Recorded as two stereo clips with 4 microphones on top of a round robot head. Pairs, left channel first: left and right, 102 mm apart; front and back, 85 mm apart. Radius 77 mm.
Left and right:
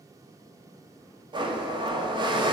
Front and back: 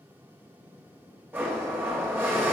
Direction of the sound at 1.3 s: 115° right.